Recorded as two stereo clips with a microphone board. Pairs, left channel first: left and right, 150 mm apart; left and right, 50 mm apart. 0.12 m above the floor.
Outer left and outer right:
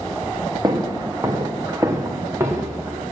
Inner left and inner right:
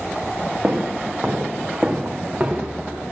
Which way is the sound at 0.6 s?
25° right (ahead or behind).